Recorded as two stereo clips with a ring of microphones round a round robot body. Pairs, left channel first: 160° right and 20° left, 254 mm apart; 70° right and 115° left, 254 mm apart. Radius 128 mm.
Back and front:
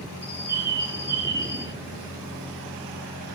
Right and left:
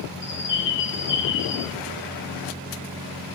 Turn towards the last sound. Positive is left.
turn(degrees=-60)